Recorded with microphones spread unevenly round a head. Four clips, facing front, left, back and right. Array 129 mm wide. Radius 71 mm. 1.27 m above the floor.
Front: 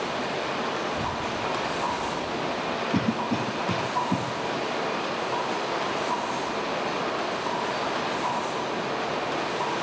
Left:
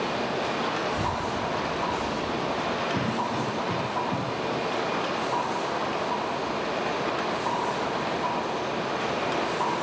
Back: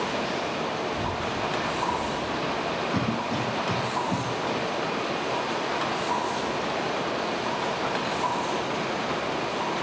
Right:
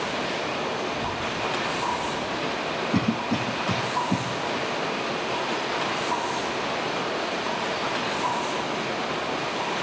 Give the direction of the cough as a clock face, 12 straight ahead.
2 o'clock.